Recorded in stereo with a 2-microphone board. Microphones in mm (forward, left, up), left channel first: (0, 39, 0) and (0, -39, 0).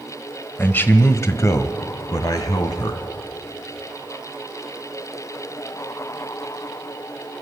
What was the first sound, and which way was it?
A man speaking, 25° left (ahead or behind).